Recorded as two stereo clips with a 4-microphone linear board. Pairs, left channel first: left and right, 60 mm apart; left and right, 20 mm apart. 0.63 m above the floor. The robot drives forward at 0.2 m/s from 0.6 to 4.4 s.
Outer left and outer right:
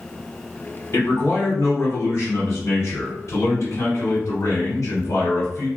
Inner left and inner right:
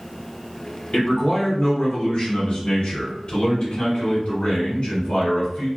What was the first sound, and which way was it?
A man speaking, 40° left (ahead or behind).